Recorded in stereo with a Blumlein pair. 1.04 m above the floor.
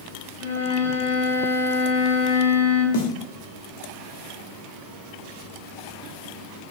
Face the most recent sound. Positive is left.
turn(degrees=55)